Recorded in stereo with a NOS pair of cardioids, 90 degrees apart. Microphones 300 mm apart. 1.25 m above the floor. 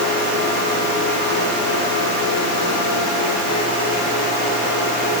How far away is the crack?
I don't hear a crack.